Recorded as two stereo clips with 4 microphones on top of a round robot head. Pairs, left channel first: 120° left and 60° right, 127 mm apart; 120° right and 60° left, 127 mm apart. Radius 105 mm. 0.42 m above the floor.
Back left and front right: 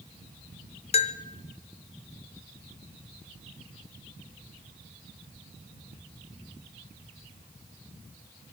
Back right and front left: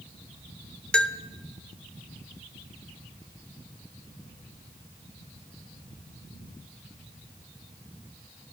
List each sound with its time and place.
0.9 s a bell: 155° left, 0.7 m